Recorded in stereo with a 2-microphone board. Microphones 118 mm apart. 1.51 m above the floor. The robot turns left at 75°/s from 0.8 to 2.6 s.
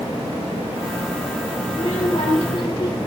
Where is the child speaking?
110° left, 2 m; by 3.0 s 45° left, 2 m.